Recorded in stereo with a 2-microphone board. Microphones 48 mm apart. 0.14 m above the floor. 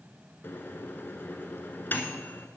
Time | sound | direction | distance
0.4 | a microwave | 45° left (ahead or behind) | 1.2 m